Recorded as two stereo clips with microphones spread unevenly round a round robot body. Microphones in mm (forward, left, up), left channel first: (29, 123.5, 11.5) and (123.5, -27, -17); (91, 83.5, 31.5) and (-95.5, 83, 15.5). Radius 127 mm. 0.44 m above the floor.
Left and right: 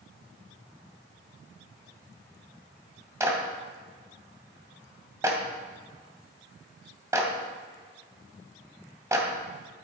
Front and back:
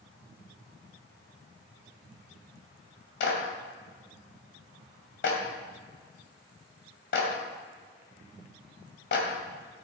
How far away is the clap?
About 2.5 m.